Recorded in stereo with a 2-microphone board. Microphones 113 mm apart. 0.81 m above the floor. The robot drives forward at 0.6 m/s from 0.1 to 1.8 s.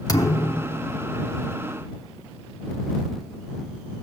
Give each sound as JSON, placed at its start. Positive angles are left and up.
{"t": 0.1, "sound": "a thud", "side_deg": 35, "distance_m": 0.8}